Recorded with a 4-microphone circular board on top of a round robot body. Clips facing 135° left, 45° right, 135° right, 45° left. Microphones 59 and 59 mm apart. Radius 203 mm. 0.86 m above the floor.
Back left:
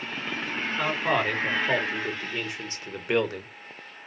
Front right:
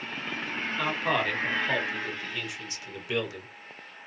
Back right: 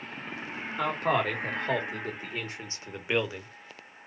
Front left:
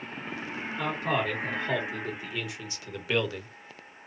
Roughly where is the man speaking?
Behind right.